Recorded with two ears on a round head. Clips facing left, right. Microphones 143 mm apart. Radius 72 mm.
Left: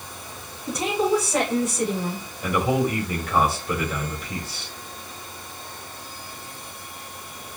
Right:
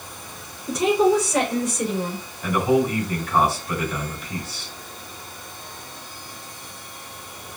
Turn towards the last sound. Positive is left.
turn(degrees=40)  # may be behind; listen again after turning